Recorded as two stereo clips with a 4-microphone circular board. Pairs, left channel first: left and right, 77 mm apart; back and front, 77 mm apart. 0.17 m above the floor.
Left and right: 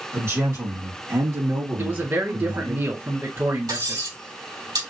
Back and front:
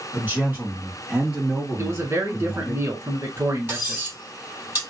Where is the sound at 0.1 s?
50° right, 2 m; by 2.8 s 95° right, 2.5 m.